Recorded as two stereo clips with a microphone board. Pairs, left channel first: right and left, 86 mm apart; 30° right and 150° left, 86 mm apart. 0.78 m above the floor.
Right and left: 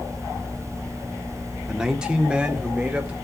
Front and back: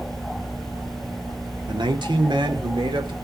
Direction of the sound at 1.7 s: 170° left.